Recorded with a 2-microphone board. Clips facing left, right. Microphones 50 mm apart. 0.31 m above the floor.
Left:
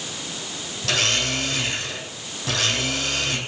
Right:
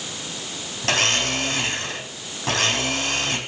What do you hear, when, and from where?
0.8 s a blender: 40° right (ahead or behind), 3.5 m